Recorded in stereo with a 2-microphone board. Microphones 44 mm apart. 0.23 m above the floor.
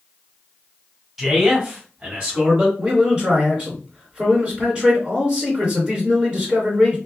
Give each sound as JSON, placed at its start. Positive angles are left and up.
{"t": 1.2, "sound": "a man speaking", "side_deg": 0, "distance_m": 1.0}
{"t": 2.8, "sound": "a man speaking", "side_deg": -25, "distance_m": 1.7}